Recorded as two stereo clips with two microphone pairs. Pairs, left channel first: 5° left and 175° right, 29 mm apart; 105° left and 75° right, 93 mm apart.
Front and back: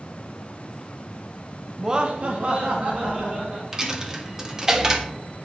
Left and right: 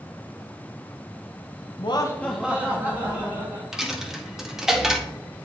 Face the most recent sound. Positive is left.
turn(degrees=-150)